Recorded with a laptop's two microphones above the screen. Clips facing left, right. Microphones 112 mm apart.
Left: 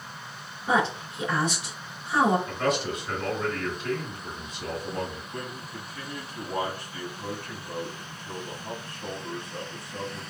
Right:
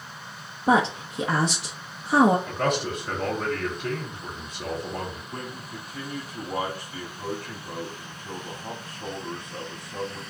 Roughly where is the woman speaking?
Right.